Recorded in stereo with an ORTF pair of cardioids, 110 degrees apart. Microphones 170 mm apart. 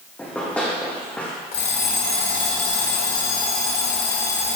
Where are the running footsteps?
10° left, 3.5 m.